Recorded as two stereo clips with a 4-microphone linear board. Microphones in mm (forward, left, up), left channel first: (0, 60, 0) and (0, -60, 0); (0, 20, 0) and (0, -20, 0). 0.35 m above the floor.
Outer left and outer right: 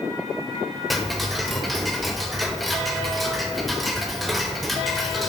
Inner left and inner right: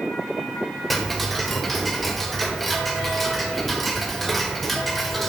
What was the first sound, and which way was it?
Ticking, centre (ahead or behind).